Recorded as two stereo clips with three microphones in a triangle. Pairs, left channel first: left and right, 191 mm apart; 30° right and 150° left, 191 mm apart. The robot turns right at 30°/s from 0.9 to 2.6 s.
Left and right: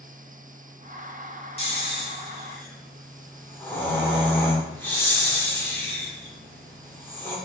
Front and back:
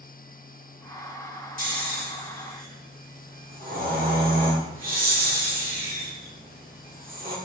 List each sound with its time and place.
1.6 s snoring: 135° left, 1.2 m; by 7.4 s 165° left, 1.2 m